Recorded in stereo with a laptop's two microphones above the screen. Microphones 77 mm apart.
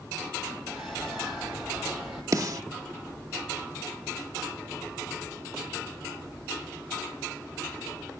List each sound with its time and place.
0.7 s a bird: 10° right (ahead or behind), 8.5 m
2.3 s a snare drum: 55° right (ahead or behind), 0.8 m